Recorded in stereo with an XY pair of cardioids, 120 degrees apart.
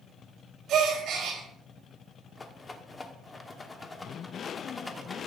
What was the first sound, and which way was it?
A gasp, 60° right.